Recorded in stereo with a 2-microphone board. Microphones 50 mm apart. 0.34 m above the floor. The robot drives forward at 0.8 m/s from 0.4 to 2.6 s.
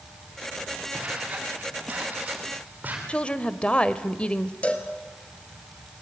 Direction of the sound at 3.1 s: 20° left (ahead or behind).